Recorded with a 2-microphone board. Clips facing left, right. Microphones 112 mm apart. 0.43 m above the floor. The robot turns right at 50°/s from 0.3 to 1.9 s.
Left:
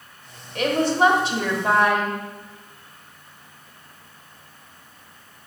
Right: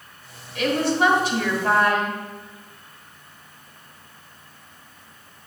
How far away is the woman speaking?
About 1.6 m.